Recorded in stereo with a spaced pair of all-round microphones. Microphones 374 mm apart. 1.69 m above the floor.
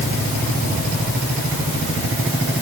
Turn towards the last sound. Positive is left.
No sound to turn to.